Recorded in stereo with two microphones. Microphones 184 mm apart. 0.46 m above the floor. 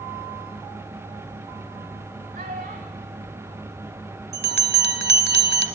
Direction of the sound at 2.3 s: 55° right (ahead or behind).